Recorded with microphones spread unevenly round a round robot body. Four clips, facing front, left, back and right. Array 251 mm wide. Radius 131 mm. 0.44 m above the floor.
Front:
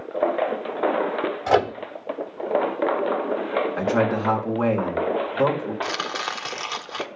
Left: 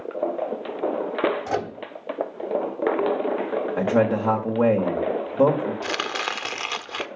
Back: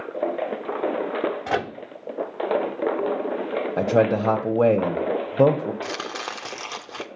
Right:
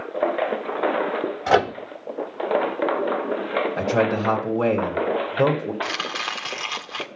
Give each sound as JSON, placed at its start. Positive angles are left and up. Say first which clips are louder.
{"t": 1.5, "sound": "a microwave", "louder": "right 8 dB, front 6 dB", "azimuth_deg": -75, "distance_m": 1.3}
{"t": 3.8, "sound": "a man speaking", "louder": "left 2 dB, back 5 dB", "azimuth_deg": 175, "distance_m": 3.0}
{"t": 5.8, "sound": "chopping", "louder": "left 1 dB, front 3 dB", "azimuth_deg": 120, "distance_m": 1.3}